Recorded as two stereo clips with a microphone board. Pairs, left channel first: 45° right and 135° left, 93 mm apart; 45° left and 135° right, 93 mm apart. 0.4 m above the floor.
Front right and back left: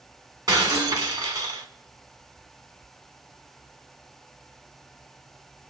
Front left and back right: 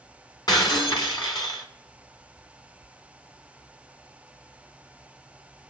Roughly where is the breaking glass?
Left.